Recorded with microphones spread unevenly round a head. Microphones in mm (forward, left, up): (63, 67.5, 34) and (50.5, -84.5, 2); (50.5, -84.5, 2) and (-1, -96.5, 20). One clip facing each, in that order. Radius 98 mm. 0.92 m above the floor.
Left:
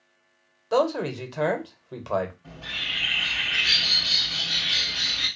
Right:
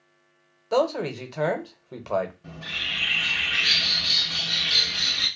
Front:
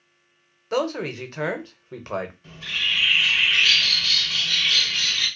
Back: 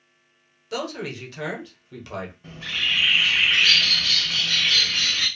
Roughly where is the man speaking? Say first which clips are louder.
Even, front 5 dB; ahead.